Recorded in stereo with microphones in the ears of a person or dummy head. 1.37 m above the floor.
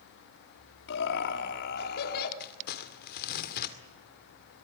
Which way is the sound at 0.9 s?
70° left (ahead or behind).